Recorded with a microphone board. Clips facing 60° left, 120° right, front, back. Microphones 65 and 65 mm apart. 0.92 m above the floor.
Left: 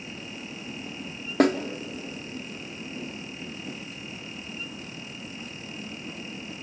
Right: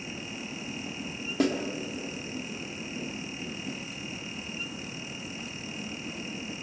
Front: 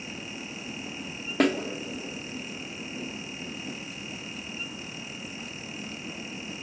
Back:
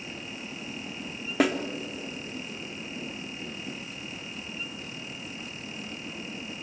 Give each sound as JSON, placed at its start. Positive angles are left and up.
{"t": 1.4, "sound": "a snare drum", "azimuth_deg": 95, "distance_m": 1.3}